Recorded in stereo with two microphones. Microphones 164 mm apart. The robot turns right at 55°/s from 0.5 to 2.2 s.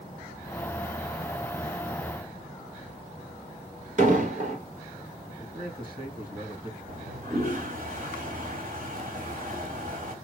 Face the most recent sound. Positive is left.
turn(degrees=-60)  # may be behind; listen again after turning